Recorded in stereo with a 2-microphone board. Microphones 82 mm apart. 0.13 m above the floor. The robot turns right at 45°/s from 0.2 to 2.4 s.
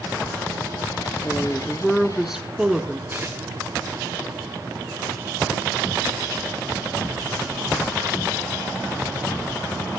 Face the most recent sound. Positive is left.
turn(degrees=-25)  # may be behind; listen again after turning